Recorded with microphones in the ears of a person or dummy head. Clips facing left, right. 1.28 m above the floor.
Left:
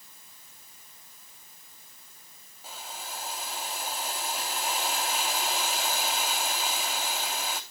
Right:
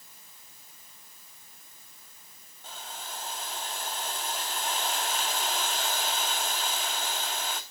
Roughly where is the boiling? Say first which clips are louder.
Left 1 dB; centre.